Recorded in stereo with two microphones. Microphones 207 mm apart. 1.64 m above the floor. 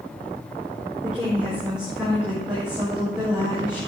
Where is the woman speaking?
5° right (ahead or behind), 4.5 m.